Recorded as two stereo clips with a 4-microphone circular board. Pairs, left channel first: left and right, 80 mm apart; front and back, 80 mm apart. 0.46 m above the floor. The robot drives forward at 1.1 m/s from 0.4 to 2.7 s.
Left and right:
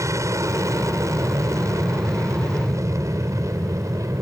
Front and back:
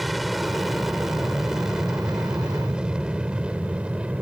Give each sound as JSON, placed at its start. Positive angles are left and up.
{"t": 0.0, "sound": "an aircraft", "azimuth_deg": -90}